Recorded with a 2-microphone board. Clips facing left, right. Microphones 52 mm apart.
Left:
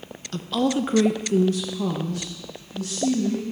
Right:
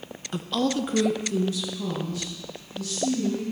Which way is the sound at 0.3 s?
15° right (ahead or behind).